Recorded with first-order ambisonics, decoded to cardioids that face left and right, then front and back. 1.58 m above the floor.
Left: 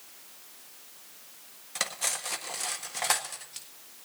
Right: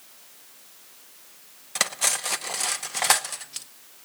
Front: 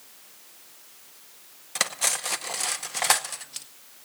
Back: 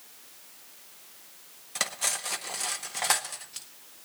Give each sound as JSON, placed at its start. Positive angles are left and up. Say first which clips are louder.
{"t": 1.8, "sound": "cutlery clinking", "louder": "right 7 dB, front 4 dB", "azimuth_deg": -55, "distance_m": 0.7}